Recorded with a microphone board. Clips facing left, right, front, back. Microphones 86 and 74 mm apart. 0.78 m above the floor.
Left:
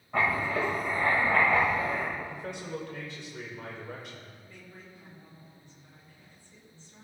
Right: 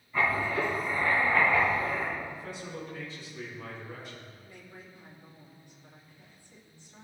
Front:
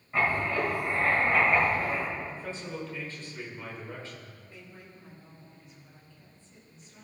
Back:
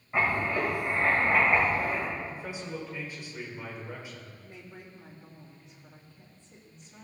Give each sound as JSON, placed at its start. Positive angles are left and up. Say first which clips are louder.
{"t": 0.1, "sound": "writing", "louder": "even, even", "azimuth_deg": 105, "distance_m": 4.0}
{"t": 2.2, "sound": "a man speaking", "louder": "left 1 dB, even", "azimuth_deg": 105, "distance_m": 3.0}
{"t": 4.4, "sound": "a woman speaking", "louder": "even, back 2 dB", "azimuth_deg": -165, "distance_m": 3.0}